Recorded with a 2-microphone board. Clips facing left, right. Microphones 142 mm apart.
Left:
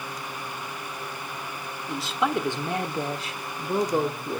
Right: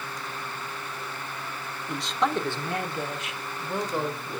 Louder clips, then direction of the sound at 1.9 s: Left 1 dB; centre (ahead or behind).